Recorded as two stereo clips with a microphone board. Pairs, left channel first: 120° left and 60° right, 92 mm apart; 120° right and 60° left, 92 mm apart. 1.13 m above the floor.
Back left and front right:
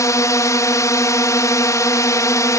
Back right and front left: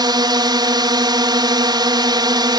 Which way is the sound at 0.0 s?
75° left.